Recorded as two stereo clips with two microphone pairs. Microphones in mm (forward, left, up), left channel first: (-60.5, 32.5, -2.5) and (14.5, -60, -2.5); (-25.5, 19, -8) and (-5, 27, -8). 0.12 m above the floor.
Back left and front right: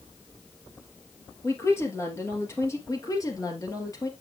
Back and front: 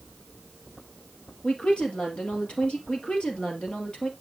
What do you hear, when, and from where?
1.4 s a woman speaking: 170° right, 2.5 m
2.9 s a woman speaking: 175° right, 2 m